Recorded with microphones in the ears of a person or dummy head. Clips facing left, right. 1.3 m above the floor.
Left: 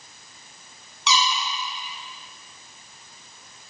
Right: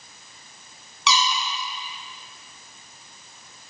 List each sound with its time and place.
1.1 s a squeak: 50° right (ahead or behind), 0.7 m